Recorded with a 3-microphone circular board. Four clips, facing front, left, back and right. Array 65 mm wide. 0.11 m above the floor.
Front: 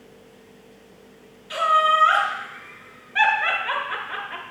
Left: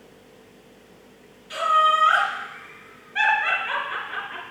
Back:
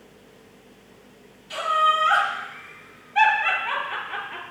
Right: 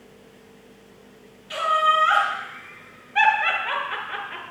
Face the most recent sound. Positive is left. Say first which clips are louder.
# left 1 dB, front 2 dB
turn(degrees=-10)